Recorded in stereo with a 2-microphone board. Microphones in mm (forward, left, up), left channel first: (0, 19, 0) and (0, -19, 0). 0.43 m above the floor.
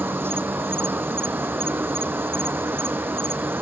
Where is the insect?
80° right.